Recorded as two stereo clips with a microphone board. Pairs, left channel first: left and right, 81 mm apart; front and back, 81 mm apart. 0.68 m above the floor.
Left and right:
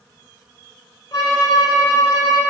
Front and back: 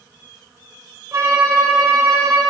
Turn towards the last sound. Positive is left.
turn(degrees=135)